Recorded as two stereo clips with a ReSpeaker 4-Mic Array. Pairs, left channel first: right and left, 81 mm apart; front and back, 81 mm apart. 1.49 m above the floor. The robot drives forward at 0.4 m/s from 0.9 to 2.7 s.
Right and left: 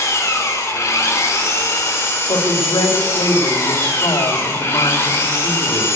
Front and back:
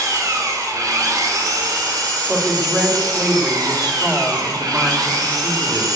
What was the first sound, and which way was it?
An engine running, 140° right.